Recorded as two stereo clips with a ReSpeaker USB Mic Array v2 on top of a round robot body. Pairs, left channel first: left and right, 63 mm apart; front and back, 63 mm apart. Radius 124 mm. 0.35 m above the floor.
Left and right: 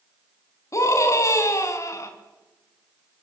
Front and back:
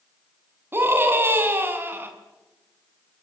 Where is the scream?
125° left, 6 m.